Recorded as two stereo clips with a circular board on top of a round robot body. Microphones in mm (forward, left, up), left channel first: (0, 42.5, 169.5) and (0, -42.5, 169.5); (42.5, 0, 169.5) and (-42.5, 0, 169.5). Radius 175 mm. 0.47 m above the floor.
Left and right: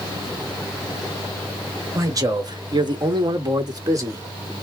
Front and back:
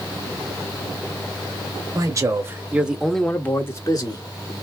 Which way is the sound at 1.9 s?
135° right.